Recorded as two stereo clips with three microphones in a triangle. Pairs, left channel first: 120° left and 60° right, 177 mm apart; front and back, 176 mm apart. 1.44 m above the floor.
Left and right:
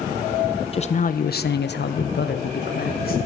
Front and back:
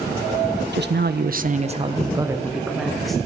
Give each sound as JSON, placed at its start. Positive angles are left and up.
{"t": 0.7, "sound": "a man speaking", "azimuth_deg": 175, "distance_m": 0.8}